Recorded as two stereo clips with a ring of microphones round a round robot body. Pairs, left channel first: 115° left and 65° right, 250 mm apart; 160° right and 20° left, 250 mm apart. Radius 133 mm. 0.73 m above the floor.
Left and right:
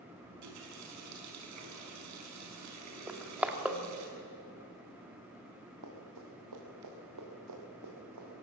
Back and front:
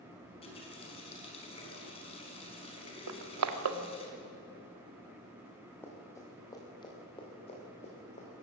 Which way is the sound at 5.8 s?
75° right.